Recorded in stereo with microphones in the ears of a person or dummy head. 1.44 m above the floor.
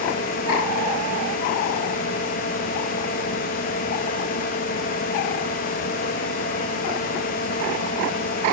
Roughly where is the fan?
Left.